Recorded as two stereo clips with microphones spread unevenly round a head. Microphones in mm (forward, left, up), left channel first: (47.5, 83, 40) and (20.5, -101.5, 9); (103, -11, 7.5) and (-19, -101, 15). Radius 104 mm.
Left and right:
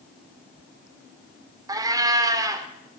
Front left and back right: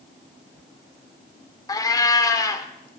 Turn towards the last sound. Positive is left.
turn(degrees=-25)